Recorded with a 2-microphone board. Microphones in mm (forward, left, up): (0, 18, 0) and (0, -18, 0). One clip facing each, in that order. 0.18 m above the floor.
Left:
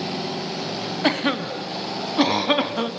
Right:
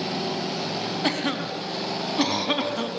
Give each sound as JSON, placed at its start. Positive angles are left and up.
{"t": 1.0, "sound": "a cough", "side_deg": 20, "distance_m": 1.5}